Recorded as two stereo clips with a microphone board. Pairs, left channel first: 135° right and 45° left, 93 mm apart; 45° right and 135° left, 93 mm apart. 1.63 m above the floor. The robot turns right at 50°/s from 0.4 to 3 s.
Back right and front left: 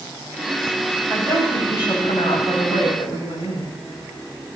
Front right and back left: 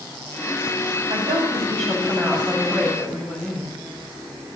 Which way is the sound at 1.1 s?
140° left.